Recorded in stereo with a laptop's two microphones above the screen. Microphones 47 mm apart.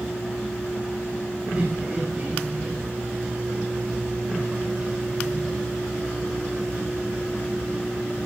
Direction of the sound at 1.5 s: 35° right (ahead or behind).